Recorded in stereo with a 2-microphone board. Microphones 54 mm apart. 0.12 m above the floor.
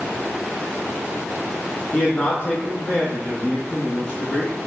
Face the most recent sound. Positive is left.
turn(degrees=20)  # may be behind; listen again after turning